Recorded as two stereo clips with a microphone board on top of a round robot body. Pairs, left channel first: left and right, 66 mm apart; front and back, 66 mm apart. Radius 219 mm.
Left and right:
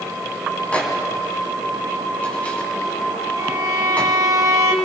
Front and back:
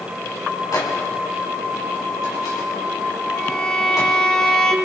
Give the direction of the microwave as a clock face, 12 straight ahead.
11 o'clock.